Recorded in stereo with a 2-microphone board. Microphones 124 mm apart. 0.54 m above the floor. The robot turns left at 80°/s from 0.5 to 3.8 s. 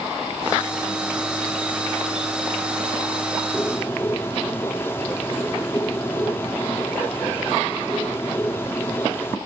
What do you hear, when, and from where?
3.5 s a bird: 10° left (ahead or behind), 0.5 m; by 9.4 s 20° left (ahead or behind), 0.5 m